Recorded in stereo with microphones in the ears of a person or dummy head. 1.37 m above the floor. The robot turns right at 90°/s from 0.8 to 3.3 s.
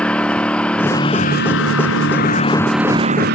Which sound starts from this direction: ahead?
A lawn mower, at 0.0 s.